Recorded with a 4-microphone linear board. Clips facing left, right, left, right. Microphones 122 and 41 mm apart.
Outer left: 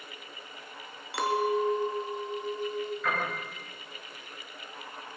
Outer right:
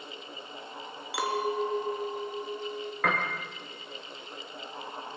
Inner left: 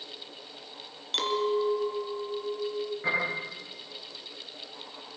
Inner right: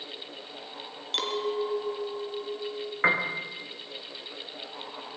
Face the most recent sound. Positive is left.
turn(degrees=-70)  # may be behind; listen again after turning